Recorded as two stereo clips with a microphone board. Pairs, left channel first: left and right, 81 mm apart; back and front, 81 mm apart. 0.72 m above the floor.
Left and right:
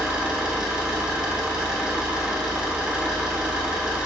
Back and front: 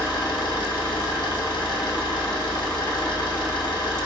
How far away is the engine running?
About 0.7 m.